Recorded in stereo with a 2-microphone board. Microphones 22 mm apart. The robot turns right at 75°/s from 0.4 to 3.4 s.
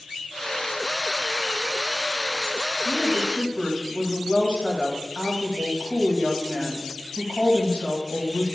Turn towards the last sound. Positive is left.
turn(degrees=100)